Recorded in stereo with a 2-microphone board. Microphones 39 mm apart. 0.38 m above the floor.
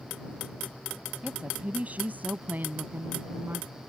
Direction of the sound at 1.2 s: 35° right (ahead or behind).